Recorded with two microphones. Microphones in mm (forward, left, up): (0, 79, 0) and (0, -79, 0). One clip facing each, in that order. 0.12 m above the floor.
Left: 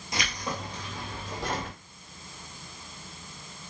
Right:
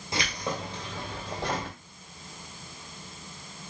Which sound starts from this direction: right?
Keys jangling, at 0.1 s.